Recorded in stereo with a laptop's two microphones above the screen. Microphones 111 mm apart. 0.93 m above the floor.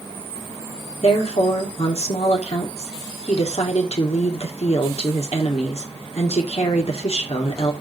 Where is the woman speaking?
70° left (ahead or behind), 2 m.